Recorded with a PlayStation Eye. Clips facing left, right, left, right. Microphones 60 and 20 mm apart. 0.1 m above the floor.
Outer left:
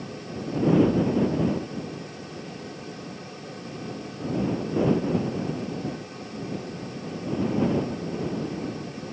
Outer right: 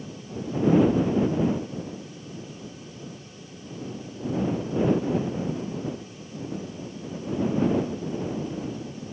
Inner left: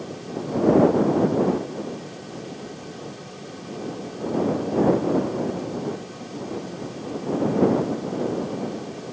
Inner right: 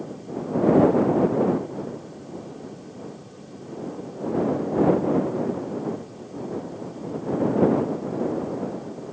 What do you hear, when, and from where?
Only background noise.